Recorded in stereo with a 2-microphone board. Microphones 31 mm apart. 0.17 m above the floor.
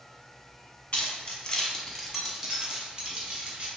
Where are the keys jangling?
40° left (ahead or behind), 1.0 m; by 3.7 s 45° right (ahead or behind), 1.6 m.